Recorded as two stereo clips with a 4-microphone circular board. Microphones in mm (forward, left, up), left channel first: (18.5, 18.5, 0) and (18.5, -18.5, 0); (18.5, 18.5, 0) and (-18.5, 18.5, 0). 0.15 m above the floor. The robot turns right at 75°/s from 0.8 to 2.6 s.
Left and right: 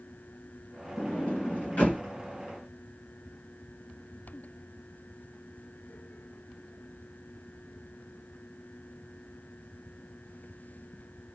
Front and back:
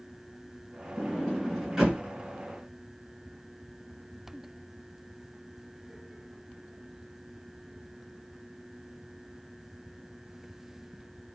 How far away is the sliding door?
About 2 m.